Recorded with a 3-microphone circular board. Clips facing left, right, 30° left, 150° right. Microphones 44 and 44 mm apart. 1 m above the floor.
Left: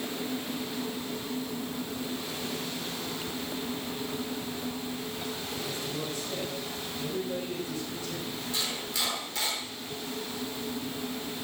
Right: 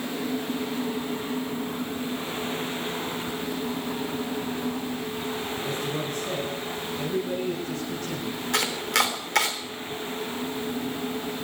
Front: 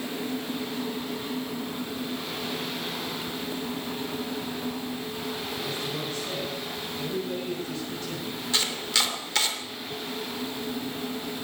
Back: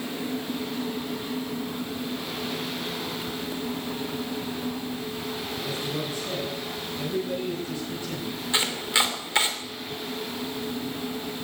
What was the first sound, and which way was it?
A man speaking, 75° right.